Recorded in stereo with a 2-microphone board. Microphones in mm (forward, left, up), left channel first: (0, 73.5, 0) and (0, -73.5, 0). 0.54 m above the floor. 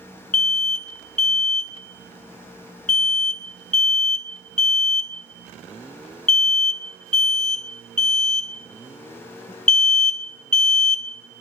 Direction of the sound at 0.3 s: 55° left (ahead or behind).